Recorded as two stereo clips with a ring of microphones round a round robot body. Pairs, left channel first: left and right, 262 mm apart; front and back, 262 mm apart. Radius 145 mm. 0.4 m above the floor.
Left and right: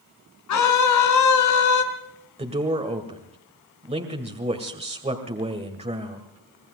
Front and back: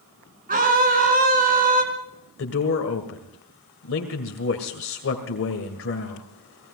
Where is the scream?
115° left, 4.5 m.